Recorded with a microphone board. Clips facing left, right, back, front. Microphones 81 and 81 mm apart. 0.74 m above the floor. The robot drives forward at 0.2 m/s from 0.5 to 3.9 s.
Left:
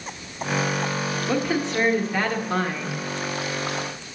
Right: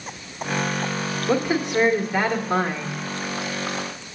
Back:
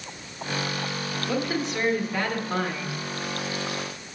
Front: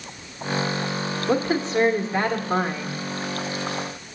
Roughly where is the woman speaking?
Ahead.